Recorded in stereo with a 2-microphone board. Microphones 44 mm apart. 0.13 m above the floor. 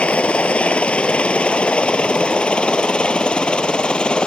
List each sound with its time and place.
0.0 s a helicopter: 30° left (ahead or behind); by 4.3 s 25° left (ahead or behind)